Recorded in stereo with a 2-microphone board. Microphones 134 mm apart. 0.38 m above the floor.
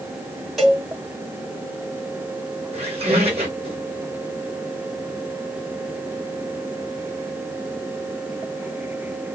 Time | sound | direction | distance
0.6 | a cowbell | centre (ahead or behind) | 1.9 m
2.7 | a squeak | 50° right (ahead or behind) | 1.8 m